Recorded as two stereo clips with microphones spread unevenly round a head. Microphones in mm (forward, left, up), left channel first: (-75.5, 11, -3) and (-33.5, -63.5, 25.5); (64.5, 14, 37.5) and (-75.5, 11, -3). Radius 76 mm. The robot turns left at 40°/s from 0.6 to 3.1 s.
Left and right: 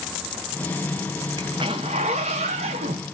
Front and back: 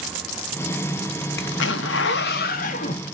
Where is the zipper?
10° left, 0.6 m; by 3.0 s 55° right, 0.6 m.